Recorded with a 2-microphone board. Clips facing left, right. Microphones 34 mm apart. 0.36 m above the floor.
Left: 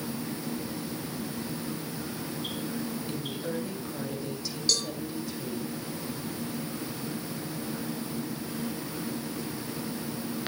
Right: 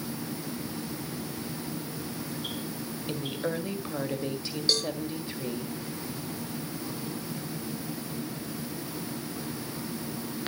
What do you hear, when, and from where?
3.1 s a woman speaking: 40° right (ahead or behind), 1.8 m
4.7 s a cowbell: 25° right (ahead or behind), 2.5 m